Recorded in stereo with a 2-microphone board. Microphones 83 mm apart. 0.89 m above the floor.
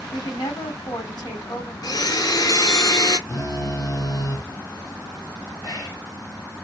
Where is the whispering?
50° left (ahead or behind), 1.8 m.